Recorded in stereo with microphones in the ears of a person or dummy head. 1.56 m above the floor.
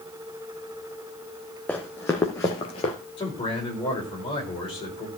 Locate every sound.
1.7 s running footsteps: 5° left (ahead or behind), 1.6 m; by 2.9 s 30° left (ahead or behind), 1.8 m
3.2 s a man speaking: 20° left (ahead or behind), 5 m